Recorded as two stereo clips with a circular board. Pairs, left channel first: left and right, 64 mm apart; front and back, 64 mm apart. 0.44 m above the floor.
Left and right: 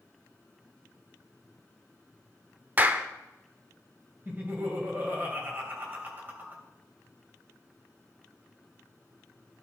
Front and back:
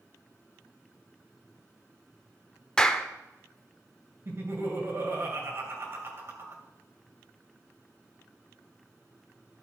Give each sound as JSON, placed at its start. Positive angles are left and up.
{"t": 2.8, "sound": "a clap", "azimuth_deg": -65, "distance_m": 0.6}
{"t": 4.2, "sound": "laughter", "azimuth_deg": -145, "distance_m": 2.5}